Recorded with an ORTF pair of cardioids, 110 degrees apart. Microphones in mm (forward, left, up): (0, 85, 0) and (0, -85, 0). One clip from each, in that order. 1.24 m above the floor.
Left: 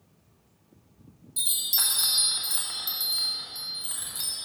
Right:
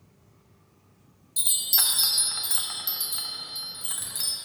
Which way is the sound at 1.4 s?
15° right.